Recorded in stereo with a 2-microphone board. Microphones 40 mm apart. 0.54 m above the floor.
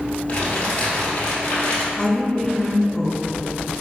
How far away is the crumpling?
About 1.6 m.